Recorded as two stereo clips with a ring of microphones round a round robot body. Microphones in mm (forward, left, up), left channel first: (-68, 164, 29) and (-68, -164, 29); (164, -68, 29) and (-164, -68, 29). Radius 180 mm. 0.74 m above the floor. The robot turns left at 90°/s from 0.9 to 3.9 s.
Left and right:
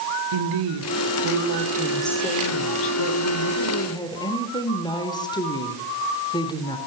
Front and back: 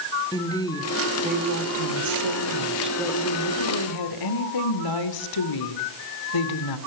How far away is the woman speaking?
About 3 m.